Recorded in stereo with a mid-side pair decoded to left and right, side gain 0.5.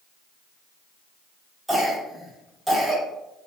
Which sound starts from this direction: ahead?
A cough, at 1.7 s.